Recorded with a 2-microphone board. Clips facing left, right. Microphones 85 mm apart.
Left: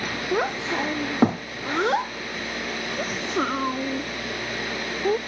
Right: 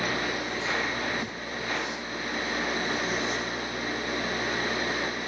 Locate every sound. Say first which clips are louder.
0.3 s a child speaking: left 6 dB; 75° left (ahead or behind); by 5.2 s 70° left (ahead or behind)